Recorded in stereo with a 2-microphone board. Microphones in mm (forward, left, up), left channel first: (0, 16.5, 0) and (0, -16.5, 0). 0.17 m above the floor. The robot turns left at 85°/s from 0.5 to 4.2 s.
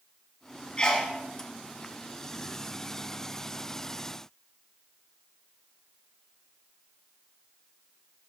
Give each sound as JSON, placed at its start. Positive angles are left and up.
{"t": 0.8, "sound": "a sneeze", "side_deg": 25, "distance_m": 1.6}